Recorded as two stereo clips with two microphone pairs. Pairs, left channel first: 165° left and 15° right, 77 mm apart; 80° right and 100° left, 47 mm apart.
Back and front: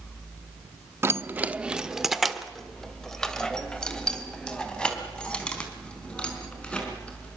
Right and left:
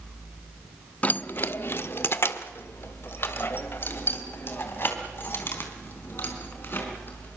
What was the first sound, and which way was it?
Keys jangling, 50° right.